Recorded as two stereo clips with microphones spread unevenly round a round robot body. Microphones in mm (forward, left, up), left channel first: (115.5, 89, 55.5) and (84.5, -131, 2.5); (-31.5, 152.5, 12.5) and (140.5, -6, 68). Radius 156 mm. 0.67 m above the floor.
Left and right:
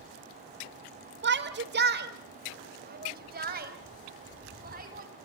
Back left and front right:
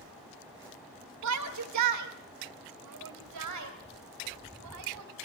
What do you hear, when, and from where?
1.2 s a shout: 70° right, 2.0 m; by 5.1 s 50° right, 5 m